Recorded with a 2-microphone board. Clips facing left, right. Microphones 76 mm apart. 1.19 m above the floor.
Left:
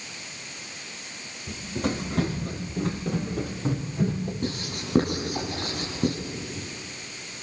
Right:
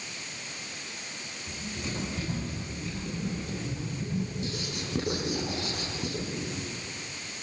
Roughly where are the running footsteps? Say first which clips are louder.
Left 9 dB; left.